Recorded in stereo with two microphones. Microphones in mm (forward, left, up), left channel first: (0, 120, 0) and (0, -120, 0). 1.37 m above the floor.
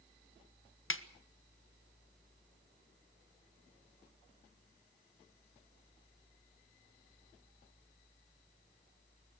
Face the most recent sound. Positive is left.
turn(degrees=60)  # may be behind; listen again after turning